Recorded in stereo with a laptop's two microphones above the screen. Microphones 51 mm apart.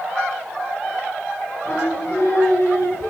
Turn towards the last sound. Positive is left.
turn(degrees=55)  # may be behind; listen again after turning